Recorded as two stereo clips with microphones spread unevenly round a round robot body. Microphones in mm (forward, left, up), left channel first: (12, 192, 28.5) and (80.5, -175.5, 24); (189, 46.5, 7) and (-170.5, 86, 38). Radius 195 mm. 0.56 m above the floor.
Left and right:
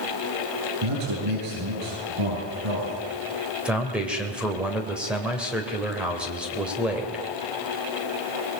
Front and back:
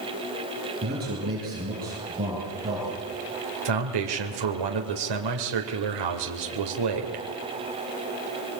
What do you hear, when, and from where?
0.8 s a man speaking: 120° right, 9.5 m; by 3.0 s 115° right, 11 m
3.6 s a man speaking: 165° right, 2.5 m